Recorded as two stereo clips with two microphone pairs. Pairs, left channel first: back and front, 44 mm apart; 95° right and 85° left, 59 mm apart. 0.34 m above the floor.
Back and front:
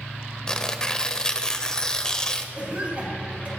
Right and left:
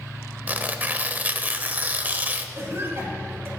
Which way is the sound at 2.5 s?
50° left.